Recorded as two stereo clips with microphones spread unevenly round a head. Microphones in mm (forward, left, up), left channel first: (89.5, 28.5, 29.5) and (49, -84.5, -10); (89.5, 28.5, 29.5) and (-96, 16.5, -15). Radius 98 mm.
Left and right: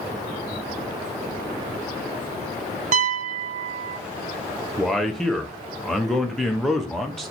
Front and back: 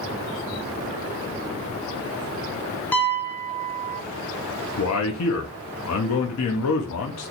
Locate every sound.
2.9 s a piano: 75° right, 0.5 m
4.8 s a man speaking: 25° right, 0.6 m